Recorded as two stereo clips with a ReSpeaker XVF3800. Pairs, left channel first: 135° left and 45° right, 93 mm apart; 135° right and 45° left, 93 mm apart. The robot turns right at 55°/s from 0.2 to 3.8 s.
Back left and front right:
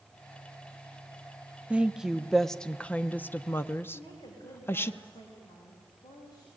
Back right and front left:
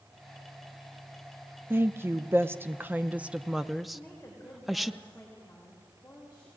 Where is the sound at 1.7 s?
20° left, 0.6 m; by 4.9 s 135° left, 0.6 m.